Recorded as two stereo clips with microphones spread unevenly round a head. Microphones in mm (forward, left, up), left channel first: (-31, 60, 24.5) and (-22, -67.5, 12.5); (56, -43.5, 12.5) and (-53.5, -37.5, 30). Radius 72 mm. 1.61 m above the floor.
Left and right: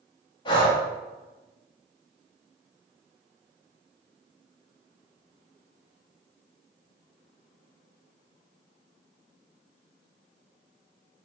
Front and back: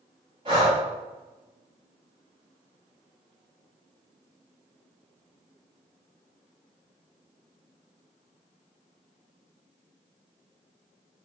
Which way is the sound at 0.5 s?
135° left.